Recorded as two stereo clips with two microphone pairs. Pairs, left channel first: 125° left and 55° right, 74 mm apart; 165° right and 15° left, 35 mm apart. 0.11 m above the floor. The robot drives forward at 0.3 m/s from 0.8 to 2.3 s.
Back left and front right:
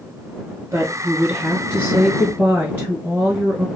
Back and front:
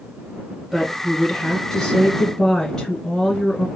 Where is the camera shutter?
No camera shutter in this recording.